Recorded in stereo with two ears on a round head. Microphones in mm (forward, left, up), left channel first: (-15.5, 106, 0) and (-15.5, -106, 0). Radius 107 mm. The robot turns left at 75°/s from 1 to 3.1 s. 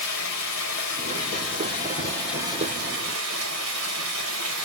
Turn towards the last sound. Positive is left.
turn(degrees=-65)